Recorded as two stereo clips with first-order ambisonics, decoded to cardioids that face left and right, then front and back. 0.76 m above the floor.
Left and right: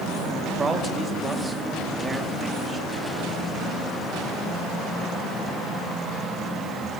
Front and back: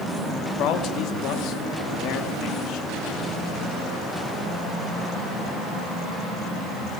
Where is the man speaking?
15° right, 1.5 m.